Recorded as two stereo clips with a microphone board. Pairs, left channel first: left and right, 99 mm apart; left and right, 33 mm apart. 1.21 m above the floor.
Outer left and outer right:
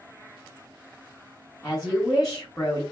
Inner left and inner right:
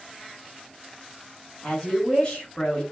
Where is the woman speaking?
10° left (ahead or behind), 1.5 m.